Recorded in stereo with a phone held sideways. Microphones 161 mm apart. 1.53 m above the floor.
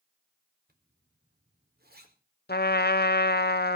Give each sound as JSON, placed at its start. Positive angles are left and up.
{"t": 0.7, "sound": "a zipper", "side_deg": -80, "distance_m": 4.0}
{"t": 2.5, "sound": "a trumpet", "side_deg": 80, "distance_m": 1.1}